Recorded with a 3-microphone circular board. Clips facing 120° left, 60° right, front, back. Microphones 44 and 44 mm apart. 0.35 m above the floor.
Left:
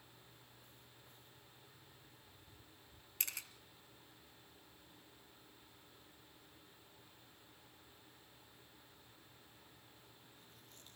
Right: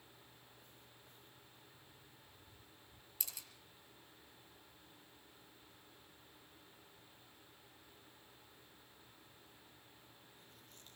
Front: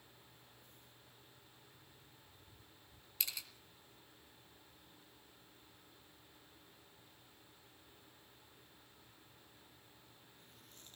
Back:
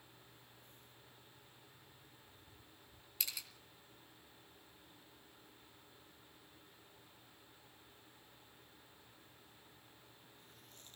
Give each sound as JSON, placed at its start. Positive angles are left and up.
{"t": 3.2, "sound": "a camera shutter", "azimuth_deg": 95, "distance_m": 2.5}